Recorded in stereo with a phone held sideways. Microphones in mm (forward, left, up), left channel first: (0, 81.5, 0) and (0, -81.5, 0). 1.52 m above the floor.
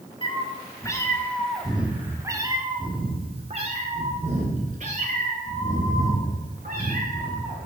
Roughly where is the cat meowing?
Left.